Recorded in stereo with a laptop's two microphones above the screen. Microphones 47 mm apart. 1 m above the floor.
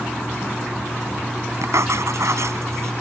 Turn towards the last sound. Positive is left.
turn(degrees=-85)